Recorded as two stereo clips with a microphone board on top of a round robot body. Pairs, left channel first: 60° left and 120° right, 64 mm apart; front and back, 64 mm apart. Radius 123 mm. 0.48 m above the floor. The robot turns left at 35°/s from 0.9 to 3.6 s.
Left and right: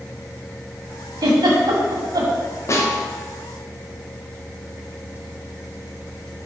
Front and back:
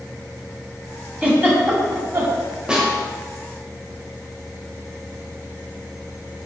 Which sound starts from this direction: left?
A snare drum, at 2.7 s.